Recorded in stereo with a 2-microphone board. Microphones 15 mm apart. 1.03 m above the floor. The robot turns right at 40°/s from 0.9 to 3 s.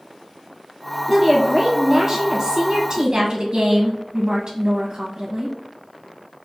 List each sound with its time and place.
1.1 s a woman speaking: straight behind, 0.7 m; by 5.5 s 105° right, 0.7 m